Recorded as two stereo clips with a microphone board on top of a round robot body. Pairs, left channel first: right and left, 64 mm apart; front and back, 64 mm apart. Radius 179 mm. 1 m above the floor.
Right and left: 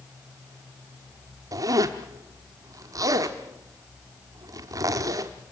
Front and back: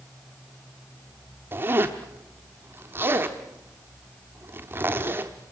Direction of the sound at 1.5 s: 120° left.